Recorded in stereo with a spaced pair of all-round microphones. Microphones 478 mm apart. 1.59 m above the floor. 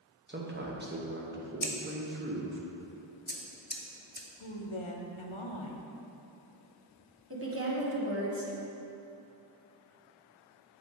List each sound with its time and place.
0.3 s a man speaking: 20° right (ahead or behind), 1.0 m
1.6 s scissors: 20° left (ahead or behind), 0.6 m
4.4 s a woman speaking: 80° left, 0.8 m
7.3 s a woman speaking: 30° right (ahead or behind), 1.2 m